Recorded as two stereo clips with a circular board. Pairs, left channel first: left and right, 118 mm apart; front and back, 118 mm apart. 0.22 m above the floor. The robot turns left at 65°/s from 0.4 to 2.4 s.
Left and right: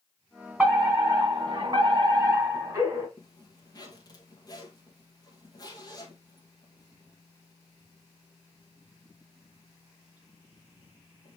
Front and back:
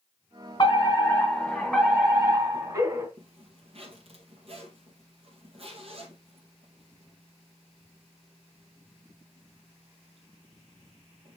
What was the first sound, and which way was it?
A fire alarm, 20° right.